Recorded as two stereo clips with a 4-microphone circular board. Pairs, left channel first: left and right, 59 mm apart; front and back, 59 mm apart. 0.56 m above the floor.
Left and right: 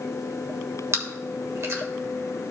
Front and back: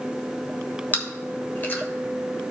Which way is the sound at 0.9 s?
50° right.